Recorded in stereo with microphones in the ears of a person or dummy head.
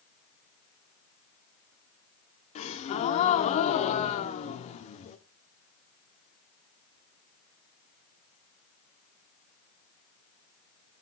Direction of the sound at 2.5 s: 35° left (ahead or behind).